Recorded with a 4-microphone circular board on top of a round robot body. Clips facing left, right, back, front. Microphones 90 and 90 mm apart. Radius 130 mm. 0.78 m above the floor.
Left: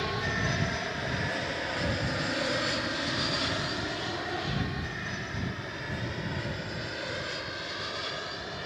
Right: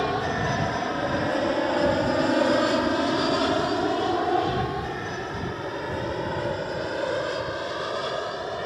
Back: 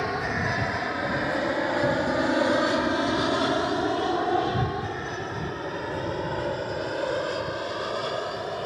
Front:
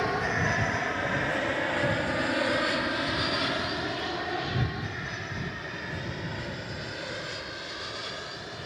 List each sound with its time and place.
0.0 s an aircraft: 90° right; by 8.7 s 140° right